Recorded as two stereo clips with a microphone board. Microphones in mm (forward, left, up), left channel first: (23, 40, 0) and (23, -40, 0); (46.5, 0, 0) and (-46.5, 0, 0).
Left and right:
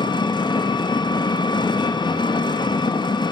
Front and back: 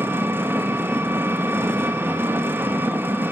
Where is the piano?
No piano in this recording.